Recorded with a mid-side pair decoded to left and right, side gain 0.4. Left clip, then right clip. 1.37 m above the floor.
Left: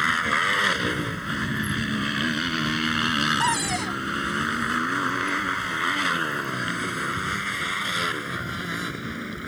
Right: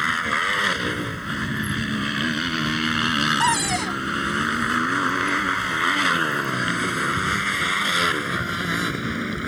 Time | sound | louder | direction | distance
0.0 | a motorcycle | even | straight ahead | ?
3.4 | a cupboard door | right 3 dB | 30° right | ?